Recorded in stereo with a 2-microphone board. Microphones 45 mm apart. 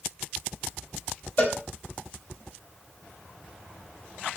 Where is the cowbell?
45° left (ahead or behind), 4 m.